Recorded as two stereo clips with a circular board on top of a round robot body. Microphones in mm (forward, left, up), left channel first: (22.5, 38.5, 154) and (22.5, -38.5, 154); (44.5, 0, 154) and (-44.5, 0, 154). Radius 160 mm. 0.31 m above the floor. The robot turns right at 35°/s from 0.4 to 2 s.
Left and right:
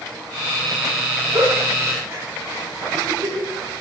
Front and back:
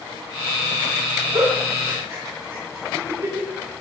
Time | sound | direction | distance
1.3 | a giggle | 145° right | 3.5 m